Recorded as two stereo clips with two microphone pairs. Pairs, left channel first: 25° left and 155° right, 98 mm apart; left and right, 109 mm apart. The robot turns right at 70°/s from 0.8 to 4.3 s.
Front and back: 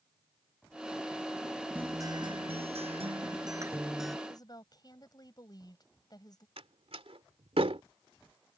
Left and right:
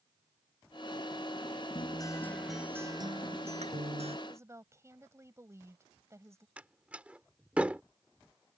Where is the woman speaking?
25° right.